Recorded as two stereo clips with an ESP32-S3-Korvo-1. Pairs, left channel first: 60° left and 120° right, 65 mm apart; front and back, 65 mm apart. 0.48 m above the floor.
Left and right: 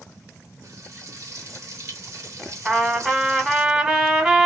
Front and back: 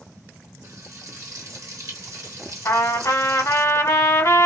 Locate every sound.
0.6 s frying: 150° right, 0.8 m
2.6 s a trumpet: 35° right, 0.8 m